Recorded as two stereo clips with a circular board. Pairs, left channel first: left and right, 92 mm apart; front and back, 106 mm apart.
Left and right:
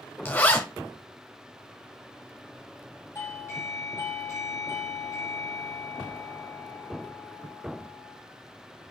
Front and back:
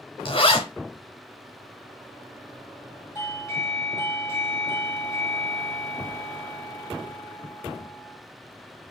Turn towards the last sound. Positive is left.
turn(degrees=50)